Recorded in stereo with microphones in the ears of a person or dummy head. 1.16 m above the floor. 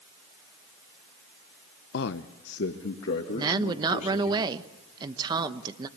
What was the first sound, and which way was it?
A man speaking, 50° left (ahead or behind).